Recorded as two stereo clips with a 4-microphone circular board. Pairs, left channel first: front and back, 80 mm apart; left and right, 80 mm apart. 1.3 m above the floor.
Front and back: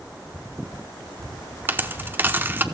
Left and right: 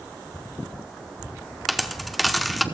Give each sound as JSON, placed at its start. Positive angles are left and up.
{"t": 1.7, "sound": "a dropped coin", "azimuth_deg": 180, "distance_m": 0.9}